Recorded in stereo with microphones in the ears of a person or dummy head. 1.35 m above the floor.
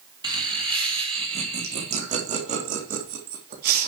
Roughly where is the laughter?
Right.